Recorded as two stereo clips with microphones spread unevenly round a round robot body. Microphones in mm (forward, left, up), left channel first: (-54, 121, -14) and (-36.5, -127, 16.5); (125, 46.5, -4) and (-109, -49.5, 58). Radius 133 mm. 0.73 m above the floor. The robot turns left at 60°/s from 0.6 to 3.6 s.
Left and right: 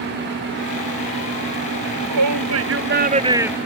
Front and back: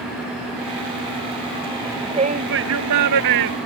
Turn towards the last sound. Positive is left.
turn(degrees=-175)